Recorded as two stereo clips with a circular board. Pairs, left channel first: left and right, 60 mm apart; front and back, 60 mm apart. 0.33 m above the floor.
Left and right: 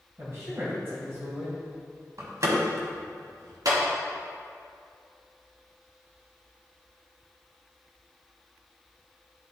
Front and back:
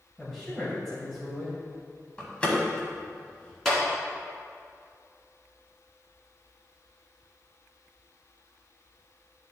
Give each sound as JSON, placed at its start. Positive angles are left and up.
{"t": 0.2, "sound": "a man speaking", "azimuth_deg": -85, "distance_m": 1.9}
{"t": 2.2, "sound": "a door slam", "azimuth_deg": -70, "distance_m": 1.5}
{"t": 3.6, "sound": "a clap", "azimuth_deg": -85, "distance_m": 2.5}